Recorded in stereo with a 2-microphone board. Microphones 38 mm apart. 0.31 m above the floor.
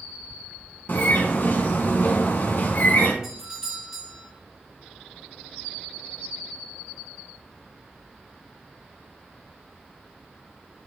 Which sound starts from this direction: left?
A bird, at 0.9 s.